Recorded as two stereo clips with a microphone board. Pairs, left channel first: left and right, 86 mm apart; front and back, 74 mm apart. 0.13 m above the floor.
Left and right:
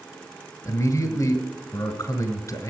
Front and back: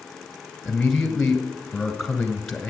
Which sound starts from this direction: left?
A man speaking, at 0.7 s.